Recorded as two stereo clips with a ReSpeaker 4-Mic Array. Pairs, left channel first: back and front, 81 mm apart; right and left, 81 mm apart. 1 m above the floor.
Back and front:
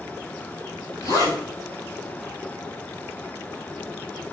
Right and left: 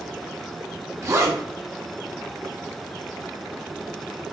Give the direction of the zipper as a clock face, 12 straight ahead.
7 o'clock.